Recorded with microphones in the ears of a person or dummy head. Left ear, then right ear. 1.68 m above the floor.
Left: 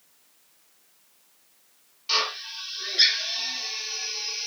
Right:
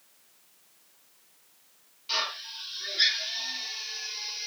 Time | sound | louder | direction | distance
2.1 | a drill | left 5 dB | 25° left (ahead or behind) | 0.7 m